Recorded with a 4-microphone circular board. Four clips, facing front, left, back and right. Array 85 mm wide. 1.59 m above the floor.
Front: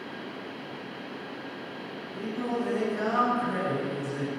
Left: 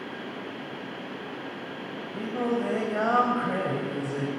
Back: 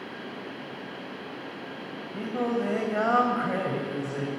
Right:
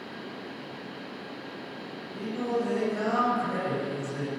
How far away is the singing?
About 4.5 m.